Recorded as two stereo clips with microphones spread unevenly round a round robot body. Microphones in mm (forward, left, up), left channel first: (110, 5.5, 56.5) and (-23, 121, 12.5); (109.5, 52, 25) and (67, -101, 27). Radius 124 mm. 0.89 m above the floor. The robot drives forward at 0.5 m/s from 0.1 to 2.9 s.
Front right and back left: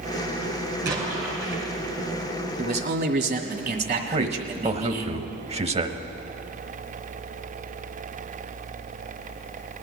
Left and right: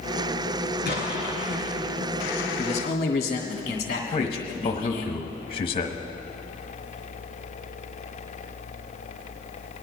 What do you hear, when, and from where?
0.8 s an explosion: 170° right, 3.5 m
2.6 s a man speaking: 130° left, 1.8 m
4.1 s a man speaking: 125° left, 1.1 m